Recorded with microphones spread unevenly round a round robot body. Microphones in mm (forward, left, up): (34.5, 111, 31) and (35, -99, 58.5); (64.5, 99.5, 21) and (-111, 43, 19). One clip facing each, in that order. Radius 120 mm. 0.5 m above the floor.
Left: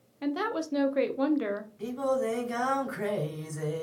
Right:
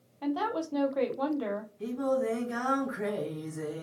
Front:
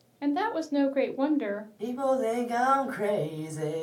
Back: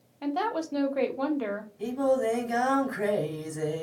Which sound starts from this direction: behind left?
Singing, at 1.8 s.